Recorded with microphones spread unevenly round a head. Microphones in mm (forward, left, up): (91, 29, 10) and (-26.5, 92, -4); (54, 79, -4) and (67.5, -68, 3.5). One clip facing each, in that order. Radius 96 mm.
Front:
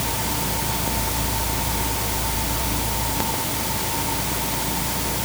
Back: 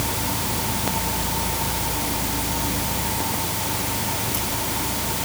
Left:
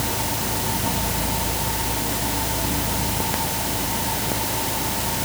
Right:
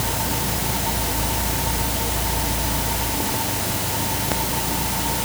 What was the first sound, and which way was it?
Only background noise.